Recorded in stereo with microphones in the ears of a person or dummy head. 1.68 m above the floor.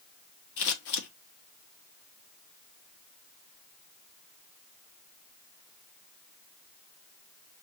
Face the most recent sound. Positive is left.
turn(degrees=60)  # may be behind; listen again after turning